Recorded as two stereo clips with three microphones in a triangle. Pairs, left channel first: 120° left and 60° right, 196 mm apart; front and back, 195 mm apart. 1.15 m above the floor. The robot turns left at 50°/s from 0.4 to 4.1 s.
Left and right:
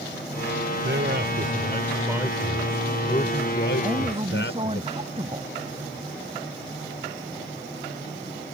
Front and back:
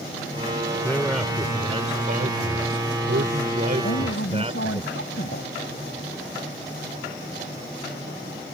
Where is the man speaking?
75° right; by 4.8 s 120° left.